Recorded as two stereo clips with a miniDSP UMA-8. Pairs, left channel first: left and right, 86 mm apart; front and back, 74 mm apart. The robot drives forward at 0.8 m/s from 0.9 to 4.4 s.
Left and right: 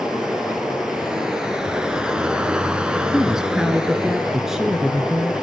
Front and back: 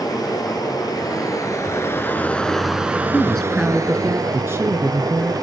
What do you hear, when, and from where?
0.0 s running water: 5° right, 1.6 m; by 5.4 s 175° right, 1.6 m
3.1 s a woman speaking: 20° right, 1.1 m; by 5.3 s 170° right, 1.2 m